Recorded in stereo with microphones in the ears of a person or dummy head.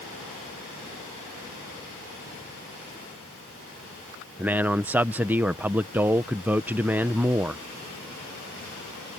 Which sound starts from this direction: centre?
A man speaking, at 4.4 s.